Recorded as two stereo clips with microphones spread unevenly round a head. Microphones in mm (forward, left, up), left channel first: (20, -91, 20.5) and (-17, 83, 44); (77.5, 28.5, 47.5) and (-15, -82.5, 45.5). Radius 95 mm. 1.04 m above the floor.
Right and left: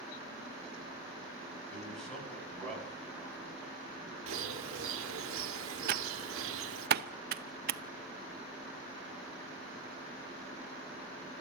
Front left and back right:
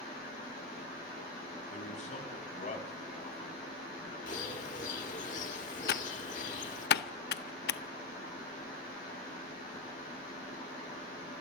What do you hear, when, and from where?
1.7 s a man speaking: 10° left, 7 m
4.3 s a bird: 100° left, 1.3 m
5.9 s typing on a keyboard: 60° left, 0.7 m